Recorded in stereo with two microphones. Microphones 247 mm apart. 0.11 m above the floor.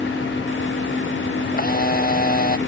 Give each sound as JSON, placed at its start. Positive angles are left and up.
{"t": 1.5, "sound": "a camera shutter", "side_deg": 40}